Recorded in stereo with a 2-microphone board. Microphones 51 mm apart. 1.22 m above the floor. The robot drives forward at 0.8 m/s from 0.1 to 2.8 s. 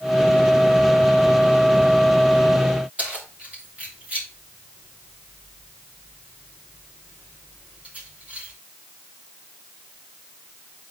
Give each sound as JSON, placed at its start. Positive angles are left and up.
{"t": 3.0, "sound": "keys jangling", "side_deg": -30, "distance_m": 3.0}